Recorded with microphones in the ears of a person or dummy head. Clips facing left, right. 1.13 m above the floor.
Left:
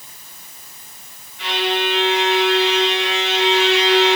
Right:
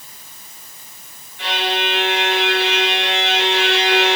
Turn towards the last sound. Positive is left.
turn(degrees=-50)  # may be behind; listen again after turning